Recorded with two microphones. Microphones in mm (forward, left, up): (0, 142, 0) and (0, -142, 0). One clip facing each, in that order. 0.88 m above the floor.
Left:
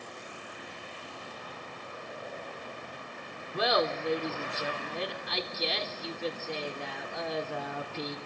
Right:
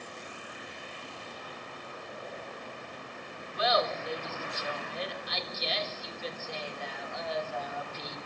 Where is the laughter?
75° left (ahead or behind), 3 m.